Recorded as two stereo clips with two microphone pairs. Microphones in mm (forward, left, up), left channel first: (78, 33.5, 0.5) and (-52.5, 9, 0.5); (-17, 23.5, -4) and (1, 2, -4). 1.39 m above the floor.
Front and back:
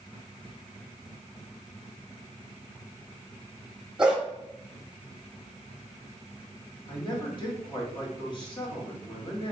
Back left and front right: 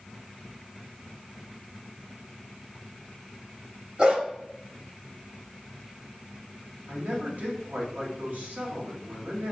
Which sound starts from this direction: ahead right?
A man speaking, at 6.9 s.